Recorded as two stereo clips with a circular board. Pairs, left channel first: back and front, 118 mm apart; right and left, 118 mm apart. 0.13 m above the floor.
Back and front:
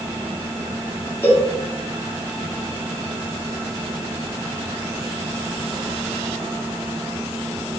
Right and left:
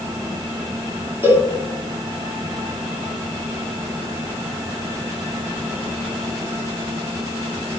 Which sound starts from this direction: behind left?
A cowbell, at 1.2 s.